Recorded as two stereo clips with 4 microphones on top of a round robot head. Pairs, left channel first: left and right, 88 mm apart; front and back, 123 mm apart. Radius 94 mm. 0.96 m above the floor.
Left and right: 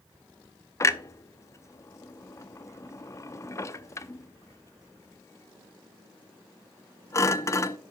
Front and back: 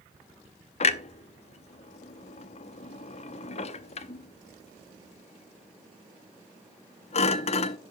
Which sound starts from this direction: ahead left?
A clunk, at 0.8 s.